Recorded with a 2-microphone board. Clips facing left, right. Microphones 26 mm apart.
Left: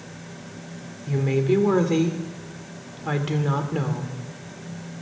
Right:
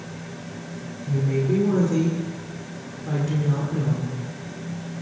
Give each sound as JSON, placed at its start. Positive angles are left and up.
{"t": 1.1, "sound": "a woman speaking", "side_deg": 60, "distance_m": 2.0}